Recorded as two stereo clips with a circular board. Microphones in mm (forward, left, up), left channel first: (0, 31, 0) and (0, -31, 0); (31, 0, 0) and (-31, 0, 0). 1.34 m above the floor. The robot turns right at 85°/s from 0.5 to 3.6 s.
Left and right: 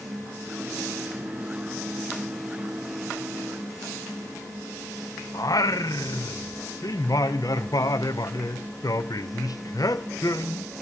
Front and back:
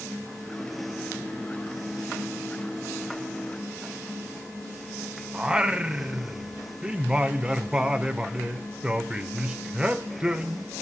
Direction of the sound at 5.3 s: 105° left.